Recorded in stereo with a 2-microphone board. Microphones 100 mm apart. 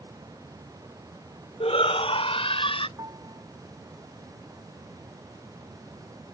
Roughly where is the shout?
Left.